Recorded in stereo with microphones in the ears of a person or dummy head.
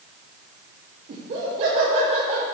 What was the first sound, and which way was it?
Laughter, 45° right (ahead or behind).